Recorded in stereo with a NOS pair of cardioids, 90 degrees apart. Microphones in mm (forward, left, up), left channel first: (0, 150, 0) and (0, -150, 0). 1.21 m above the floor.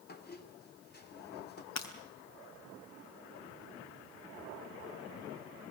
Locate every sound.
0.1 s a squeak: 35° left, 2.5 m
1.8 s breaking glass: 60° left, 3 m